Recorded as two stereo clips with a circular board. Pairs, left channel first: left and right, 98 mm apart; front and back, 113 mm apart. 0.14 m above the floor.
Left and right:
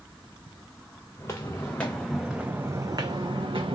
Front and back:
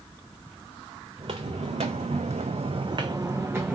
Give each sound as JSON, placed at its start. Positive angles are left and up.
{"t": 1.2, "sound": "footsteps", "azimuth_deg": 150, "distance_m": 0.9}